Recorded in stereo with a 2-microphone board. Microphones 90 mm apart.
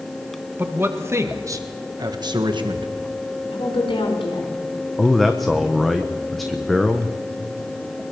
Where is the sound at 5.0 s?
Centre (ahead or behind), 1.1 m.